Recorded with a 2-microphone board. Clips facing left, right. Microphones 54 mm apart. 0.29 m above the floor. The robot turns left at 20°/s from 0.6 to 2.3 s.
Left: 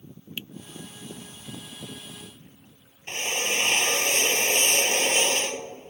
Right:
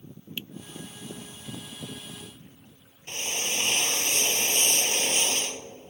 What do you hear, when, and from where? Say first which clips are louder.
0.4 s a finger snap: even; 15° left (ahead or behind)
3.1 s a drill: left 4 dB; 45° left (ahead or behind)